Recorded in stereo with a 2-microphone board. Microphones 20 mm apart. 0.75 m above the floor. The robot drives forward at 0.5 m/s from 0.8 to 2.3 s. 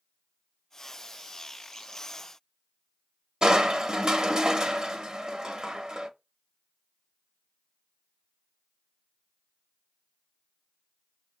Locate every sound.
3.4 s crushing: 40° right (ahead or behind), 0.6 m